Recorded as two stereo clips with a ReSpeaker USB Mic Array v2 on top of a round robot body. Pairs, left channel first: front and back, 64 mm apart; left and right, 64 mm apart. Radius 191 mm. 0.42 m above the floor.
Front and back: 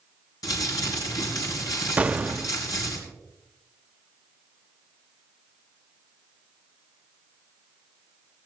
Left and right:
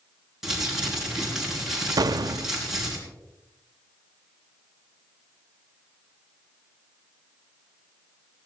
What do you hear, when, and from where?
0.4 s crumpling: 5° right, 5.5 m
2.0 s an explosion: 110° right, 0.5 m